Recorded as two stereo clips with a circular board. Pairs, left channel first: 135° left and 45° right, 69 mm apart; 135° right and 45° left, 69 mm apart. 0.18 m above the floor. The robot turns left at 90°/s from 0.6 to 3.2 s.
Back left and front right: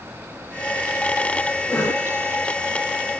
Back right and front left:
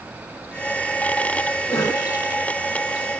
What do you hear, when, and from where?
1.7 s a cough: 155° right, 8.5 m; by 2.1 s 170° left, 8.5 m